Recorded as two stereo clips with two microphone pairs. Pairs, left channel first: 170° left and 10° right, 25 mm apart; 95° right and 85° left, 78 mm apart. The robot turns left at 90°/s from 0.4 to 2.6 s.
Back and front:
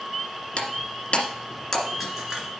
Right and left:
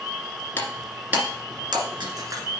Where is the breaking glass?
155° right, 1.9 m; by 2.5 s 30° left, 1.9 m.